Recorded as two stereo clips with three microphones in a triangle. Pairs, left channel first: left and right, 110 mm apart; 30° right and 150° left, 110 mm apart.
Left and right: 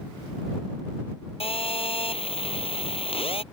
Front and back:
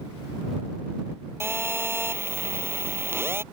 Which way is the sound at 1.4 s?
85° left.